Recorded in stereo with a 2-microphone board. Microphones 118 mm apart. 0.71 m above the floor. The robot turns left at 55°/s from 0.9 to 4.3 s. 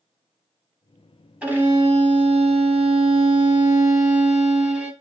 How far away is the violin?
About 0.9 m.